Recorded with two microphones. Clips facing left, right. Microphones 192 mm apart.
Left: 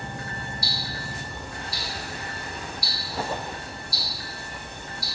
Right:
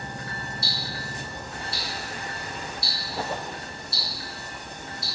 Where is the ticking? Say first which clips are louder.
Even; 25° right (ahead or behind), 2.0 m.